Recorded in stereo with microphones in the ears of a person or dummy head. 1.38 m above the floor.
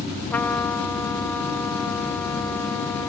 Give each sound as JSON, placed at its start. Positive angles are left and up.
{"t": 0.3, "sound": "a trumpet", "side_deg": 5, "distance_m": 0.9}